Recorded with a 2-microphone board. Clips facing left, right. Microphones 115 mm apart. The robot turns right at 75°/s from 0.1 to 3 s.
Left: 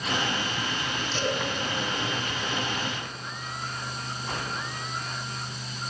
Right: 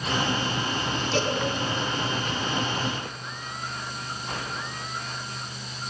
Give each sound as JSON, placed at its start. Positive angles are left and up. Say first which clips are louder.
{"t": 1.1, "sound": "a cowbell", "louder": "right 3 dB", "side_deg": -80, "distance_m": 8.0}